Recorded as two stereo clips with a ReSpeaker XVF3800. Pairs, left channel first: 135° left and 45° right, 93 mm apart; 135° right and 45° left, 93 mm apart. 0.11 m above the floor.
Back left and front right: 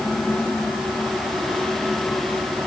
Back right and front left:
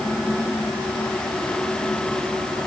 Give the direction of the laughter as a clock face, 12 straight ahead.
I don't hear laughter.